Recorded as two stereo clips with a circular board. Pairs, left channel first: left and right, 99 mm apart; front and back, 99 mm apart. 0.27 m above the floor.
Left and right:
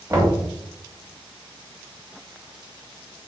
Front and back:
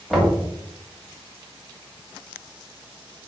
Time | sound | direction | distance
0.1 | knocking | 90° right | 1.0 m